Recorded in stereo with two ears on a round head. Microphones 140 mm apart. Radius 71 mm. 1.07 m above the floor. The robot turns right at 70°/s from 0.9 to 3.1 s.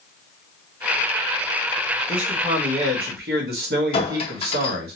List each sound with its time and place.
2.1 s a man speaking: 175° right, 1.0 m; by 4.9 s 105° right, 1.0 m
3.9 s a clink: 35° left (ahead or behind), 0.8 m